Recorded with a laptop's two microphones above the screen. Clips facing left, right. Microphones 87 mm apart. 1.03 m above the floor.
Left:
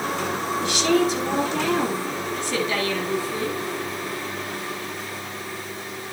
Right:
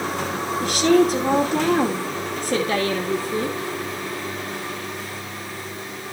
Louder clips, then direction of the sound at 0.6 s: Right 4 dB; 45° right (ahead or behind).